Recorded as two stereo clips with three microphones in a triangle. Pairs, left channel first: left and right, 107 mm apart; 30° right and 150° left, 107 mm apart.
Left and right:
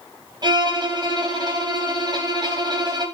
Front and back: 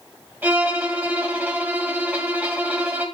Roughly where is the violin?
Behind right.